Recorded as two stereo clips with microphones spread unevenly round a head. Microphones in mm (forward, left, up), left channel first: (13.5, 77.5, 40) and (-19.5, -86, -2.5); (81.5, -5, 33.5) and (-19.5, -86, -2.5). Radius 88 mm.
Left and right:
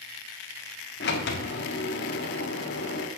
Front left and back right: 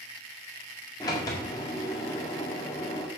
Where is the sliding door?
110° left, 1.6 m.